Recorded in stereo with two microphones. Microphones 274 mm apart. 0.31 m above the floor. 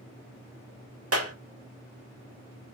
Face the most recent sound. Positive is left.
turn(degrees=-60)  # may be behind; listen again after turning